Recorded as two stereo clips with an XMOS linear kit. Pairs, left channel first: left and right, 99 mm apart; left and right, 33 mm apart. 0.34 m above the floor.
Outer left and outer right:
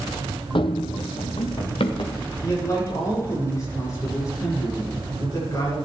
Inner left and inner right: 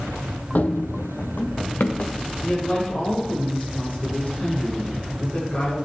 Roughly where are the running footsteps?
Left.